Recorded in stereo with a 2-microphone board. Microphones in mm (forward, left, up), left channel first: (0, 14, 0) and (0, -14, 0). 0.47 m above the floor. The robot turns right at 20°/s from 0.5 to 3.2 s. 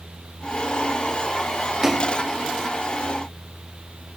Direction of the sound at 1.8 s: 20° right (ahead or behind).